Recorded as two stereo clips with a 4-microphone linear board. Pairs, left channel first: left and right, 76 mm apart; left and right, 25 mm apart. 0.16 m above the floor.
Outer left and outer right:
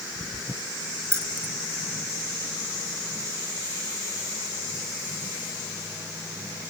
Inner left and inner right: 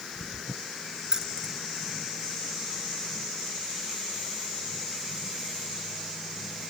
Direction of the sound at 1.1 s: 35° right (ahead or behind).